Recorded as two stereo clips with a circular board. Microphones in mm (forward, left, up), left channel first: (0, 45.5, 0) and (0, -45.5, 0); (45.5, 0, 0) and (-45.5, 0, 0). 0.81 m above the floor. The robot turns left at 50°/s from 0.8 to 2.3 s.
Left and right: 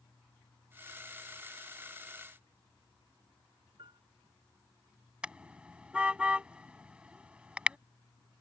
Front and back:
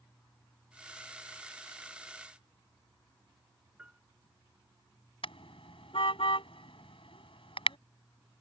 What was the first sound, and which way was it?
A piano, 105° right.